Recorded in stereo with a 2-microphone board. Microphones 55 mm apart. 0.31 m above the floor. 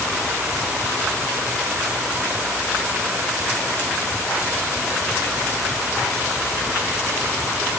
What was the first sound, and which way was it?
Only background noise.